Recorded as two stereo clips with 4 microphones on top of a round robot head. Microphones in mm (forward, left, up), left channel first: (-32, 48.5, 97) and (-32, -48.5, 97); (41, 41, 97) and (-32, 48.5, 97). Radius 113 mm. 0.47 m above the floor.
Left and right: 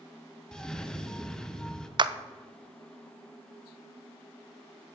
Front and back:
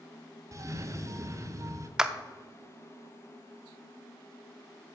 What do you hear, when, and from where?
0.5 s a cough: 170° left, 1.5 m
2.0 s a clap: 110° right, 0.7 m